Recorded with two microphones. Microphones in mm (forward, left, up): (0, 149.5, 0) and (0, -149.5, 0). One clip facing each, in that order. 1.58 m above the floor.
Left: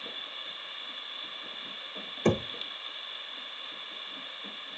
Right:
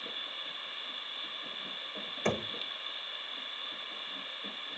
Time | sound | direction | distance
2.2 | knocking | 45° left (ahead or behind) | 0.5 m